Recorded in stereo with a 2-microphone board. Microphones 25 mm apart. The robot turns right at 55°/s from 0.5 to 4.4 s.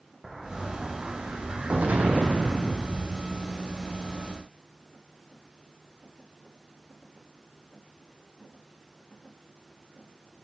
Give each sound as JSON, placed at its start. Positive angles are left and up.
{"t": 0.2, "sound": "an explosion", "azimuth_deg": -175, "distance_m": 2.5}